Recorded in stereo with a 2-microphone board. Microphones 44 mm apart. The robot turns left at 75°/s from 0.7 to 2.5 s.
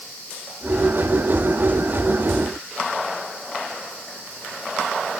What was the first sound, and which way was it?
Only background noise.